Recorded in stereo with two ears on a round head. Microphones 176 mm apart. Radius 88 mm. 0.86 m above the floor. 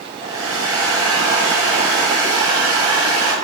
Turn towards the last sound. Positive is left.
turn(degrees=-85)